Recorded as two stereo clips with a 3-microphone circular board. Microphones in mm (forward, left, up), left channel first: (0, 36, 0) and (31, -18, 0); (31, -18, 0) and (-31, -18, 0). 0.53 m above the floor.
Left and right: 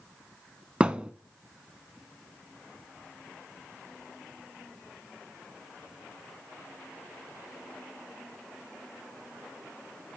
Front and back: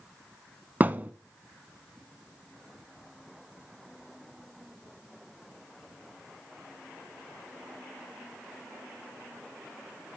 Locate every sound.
0.8 s a thud: 125° right, 0.6 m